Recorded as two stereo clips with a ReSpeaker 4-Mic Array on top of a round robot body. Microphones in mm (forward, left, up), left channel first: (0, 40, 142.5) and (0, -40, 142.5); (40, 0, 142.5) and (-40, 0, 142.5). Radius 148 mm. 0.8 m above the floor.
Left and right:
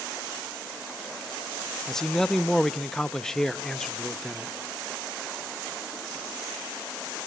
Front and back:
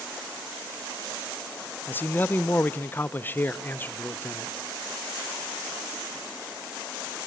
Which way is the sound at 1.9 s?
15° left.